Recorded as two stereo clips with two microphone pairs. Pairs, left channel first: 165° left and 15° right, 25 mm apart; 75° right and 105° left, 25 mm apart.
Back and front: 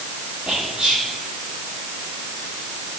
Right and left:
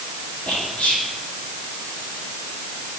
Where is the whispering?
55° right, 4 m.